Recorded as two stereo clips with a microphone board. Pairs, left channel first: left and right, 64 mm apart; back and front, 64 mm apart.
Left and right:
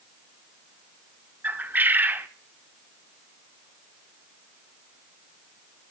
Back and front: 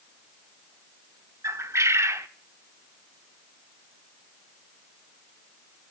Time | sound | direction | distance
1.4 | a bird | 35° right | 0.7 m